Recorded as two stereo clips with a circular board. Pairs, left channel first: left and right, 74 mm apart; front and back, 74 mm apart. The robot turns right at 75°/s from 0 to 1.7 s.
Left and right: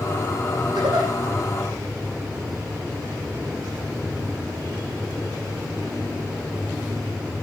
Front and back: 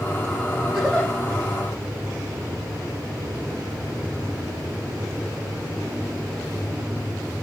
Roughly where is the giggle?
Right.